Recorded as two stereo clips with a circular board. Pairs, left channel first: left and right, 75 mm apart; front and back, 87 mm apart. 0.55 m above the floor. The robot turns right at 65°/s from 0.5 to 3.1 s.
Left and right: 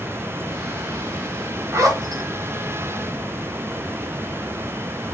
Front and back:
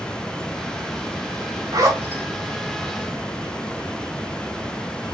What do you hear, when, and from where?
1.7 s a zipper: 140° right, 1.3 m; by 2.2 s 105° right, 1.3 m